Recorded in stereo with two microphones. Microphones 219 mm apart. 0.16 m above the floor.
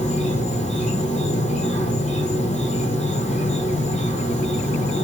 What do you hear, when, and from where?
0.0 s an insect: 30° left (ahead or behind), 1.9 m